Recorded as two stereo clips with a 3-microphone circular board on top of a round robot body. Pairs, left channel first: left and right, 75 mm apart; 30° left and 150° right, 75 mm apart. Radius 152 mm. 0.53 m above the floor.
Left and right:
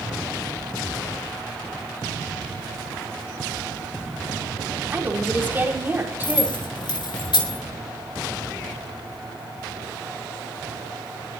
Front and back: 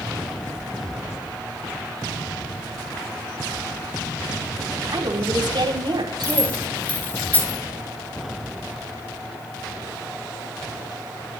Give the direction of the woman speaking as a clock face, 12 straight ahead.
5 o'clock.